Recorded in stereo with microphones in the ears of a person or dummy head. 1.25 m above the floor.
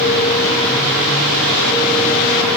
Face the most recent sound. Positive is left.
No sound to turn to.